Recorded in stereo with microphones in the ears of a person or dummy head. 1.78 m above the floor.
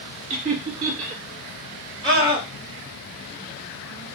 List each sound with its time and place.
0.3 s laughter: 50° right (ahead or behind), 1.3 m
2.0 s a scream: 30° right (ahead or behind), 1.3 m